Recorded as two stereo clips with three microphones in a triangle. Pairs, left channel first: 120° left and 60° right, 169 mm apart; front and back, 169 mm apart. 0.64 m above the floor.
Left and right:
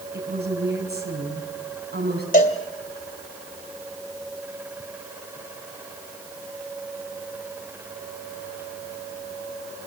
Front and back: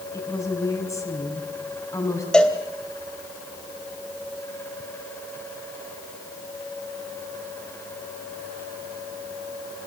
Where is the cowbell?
85° left, 2.5 m.